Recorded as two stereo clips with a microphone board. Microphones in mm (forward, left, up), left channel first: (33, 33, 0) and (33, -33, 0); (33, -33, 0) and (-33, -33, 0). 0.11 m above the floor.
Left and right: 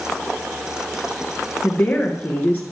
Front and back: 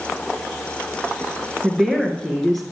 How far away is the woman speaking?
About 1.3 m.